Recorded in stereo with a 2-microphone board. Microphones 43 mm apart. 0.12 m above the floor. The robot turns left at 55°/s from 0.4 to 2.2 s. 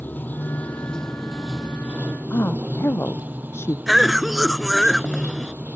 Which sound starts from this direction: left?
A woman speaking, at 2.3 s.